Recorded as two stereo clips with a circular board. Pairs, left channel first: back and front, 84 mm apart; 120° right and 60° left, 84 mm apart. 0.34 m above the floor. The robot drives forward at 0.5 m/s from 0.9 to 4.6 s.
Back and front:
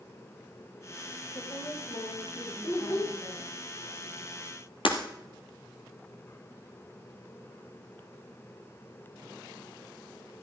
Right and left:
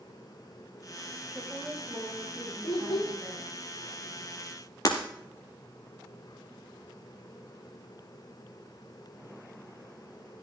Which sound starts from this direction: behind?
Breaking glass, at 4.8 s.